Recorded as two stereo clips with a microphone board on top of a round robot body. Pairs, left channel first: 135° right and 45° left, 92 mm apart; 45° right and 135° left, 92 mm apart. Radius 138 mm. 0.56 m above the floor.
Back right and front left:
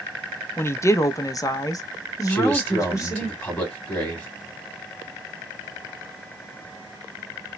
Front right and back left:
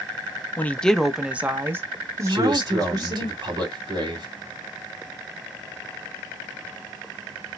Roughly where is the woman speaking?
Right.